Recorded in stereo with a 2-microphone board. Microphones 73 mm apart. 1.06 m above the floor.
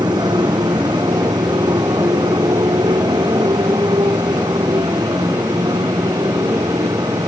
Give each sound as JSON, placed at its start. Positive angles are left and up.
{"t": 0.0, "sound": "a motorcycle", "side_deg": -80}